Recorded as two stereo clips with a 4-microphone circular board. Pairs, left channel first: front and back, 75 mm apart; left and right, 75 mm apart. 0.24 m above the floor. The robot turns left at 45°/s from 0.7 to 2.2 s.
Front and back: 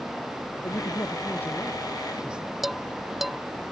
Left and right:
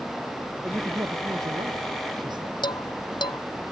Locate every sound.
0.6 s a man speaking: 35° right; by 2.5 s 100° right
2.6 s dishes clattering: 90° left